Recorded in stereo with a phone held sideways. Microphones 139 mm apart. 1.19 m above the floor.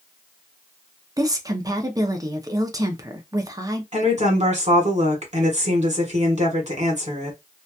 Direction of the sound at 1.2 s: 25° right (ahead or behind).